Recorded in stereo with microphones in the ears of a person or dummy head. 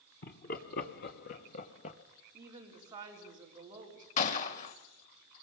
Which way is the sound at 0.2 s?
50° left (ahead or behind).